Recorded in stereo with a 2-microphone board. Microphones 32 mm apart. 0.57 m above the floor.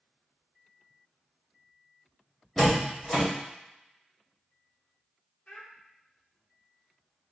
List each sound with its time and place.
2.6 s a door slam: 5° left (ahead or behind), 2 m
5.5 s a child speaking: 50° left (ahead or behind), 1.1 m